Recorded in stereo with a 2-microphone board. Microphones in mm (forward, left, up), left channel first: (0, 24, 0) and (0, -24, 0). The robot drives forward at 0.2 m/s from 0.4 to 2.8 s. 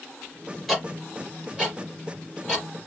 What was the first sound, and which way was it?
Ticking, centre (ahead or behind).